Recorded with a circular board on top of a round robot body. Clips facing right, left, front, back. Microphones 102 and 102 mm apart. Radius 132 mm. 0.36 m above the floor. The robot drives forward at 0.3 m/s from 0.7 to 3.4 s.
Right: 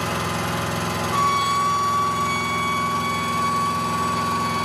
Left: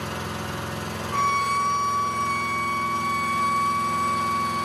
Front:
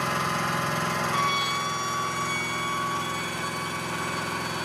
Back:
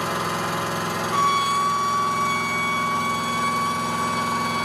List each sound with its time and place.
0.0 s an engine running: 100° right, 3 m; by 4.7 s 115° right, 3 m
1.1 s a violin: 165° right, 0.6 m; by 4.7 s 175° right, 1.1 m